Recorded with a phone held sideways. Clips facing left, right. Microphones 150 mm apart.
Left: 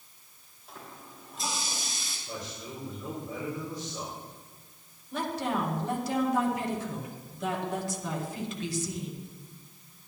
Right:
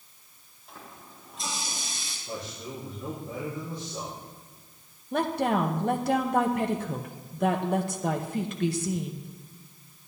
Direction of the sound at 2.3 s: 35° right (ahead or behind).